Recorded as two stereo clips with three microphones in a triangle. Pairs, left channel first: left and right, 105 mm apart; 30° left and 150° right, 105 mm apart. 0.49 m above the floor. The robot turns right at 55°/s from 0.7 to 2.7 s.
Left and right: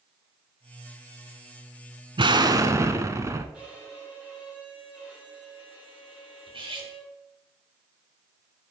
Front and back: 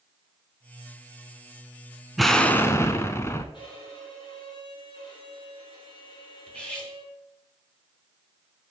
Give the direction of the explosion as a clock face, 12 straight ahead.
2 o'clock.